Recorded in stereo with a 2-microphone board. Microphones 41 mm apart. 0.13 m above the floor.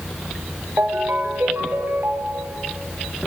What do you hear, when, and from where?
0.8 s a ringtone: 55° right (ahead or behind), 2 m